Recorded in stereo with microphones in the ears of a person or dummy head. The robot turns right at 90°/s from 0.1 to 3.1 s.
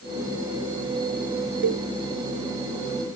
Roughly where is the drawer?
No drawer in this recording.